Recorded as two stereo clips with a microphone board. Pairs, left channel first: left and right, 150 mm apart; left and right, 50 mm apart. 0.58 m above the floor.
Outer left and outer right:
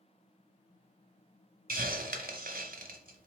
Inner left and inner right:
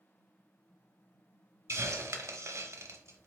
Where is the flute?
No flute in this recording.